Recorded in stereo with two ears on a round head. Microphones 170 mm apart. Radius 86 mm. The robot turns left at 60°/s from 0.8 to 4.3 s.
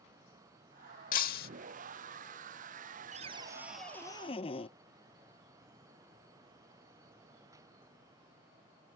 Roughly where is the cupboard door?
Behind right.